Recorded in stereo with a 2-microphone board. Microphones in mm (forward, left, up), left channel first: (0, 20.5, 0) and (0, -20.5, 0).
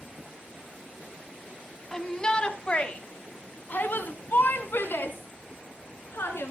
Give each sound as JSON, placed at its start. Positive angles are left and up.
{"t": 1.9, "sound": "a shout", "side_deg": 15, "distance_m": 1.8}